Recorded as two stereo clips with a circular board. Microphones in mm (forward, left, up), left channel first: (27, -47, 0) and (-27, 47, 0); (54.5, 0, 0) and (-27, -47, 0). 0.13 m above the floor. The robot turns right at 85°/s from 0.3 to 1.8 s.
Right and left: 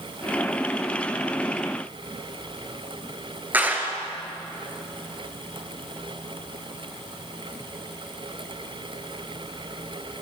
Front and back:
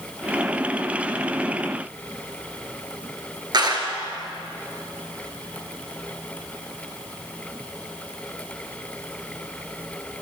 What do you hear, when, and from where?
3.5 s a clap: 170° right, 1.9 m